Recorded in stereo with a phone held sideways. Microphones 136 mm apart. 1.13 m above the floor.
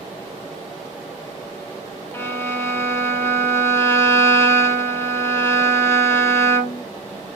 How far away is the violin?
About 0.5 m.